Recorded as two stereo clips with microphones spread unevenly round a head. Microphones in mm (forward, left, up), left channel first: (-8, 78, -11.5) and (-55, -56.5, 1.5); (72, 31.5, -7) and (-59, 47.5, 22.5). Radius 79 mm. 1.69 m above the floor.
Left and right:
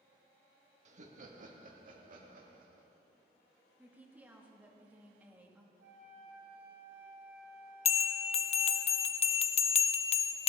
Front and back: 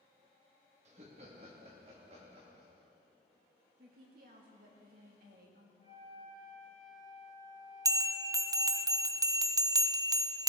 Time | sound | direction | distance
0.8 | laughter | 140° right | 1.9 m
3.8 | a woman speaking | 175° left | 2.5 m
5.8 | a flute | 75° right | 4 m
7.8 | a bell | 115° left | 0.7 m